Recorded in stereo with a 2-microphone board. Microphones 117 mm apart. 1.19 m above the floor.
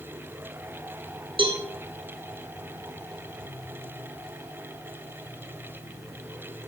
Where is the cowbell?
45° right (ahead or behind), 1.2 m.